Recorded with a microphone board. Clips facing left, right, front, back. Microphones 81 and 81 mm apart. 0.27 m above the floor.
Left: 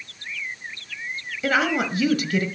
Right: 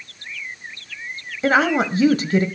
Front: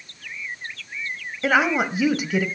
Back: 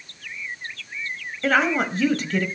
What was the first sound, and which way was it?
A woman speaking, 70° right.